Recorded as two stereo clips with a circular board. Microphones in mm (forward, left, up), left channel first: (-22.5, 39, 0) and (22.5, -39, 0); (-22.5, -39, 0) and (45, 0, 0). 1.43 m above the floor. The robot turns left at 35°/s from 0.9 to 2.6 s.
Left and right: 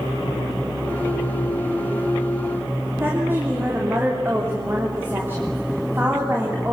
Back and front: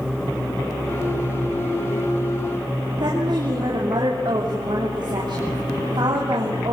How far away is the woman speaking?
About 3.5 m.